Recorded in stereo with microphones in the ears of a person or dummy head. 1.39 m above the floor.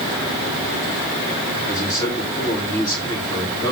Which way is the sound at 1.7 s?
20° left (ahead or behind).